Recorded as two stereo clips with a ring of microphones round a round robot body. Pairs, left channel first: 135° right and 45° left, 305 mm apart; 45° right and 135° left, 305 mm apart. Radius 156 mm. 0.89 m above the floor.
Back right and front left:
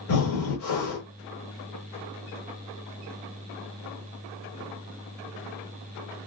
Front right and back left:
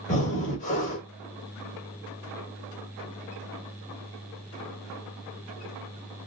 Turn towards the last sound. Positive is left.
turn(degrees=-105)